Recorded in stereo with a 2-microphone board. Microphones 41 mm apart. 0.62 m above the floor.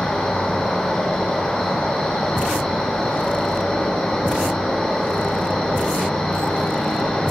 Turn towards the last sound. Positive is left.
turn(degrees=15)  # may be behind; listen again after turning